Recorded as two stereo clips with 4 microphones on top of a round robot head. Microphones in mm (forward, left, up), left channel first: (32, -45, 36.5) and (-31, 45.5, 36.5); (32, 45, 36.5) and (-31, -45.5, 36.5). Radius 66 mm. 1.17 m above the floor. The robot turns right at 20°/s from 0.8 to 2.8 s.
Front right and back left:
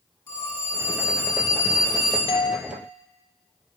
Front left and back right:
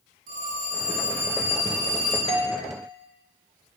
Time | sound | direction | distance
0.3 | a phone ringing | 125° right | 8.5 m
2.3 | a doorbell | 95° right | 2 m